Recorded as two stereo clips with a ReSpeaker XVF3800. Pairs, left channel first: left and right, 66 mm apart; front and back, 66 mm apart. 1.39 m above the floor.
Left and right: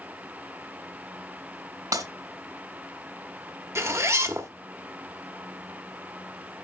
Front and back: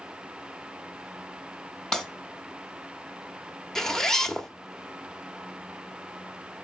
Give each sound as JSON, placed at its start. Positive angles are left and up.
{"t": 1.9, "sound": "breaking glass", "azimuth_deg": -80, "distance_m": 2.5}
{"t": 3.8, "sound": "a zipper", "azimuth_deg": -80, "distance_m": 1.2}